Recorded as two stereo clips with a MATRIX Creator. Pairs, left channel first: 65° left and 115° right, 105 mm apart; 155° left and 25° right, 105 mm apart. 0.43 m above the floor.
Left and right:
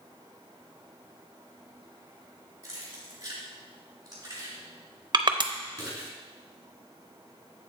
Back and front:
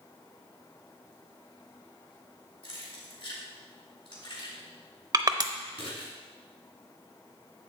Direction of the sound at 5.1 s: 70° right.